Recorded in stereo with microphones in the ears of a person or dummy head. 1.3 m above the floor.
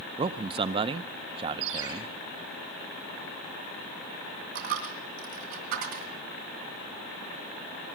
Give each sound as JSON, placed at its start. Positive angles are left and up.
{"t": 0.2, "sound": "a man speaking", "side_deg": -25, "distance_m": 0.5}
{"t": 1.6, "sound": "a ringtone", "side_deg": -80, "distance_m": 4.5}
{"t": 4.5, "sound": "a dropped coin", "side_deg": -60, "distance_m": 3.0}